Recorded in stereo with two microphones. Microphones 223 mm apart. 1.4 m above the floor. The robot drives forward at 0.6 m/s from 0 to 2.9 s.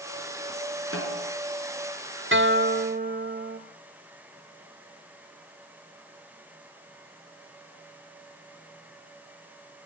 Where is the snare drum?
70° right (ahead or behind), 6.5 m.